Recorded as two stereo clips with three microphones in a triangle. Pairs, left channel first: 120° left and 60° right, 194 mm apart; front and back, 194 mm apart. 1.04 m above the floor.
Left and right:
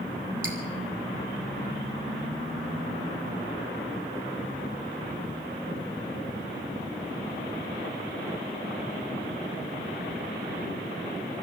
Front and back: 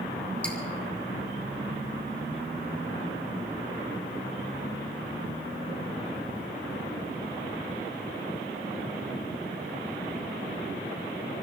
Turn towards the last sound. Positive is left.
turn(degrees=-85)